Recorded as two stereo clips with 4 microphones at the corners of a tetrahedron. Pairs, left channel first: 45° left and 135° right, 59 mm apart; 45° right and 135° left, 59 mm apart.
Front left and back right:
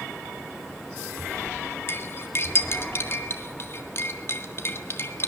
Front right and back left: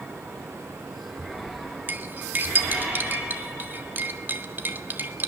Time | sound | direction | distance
1.9 | cutlery clinking | 85° left | 1.7 m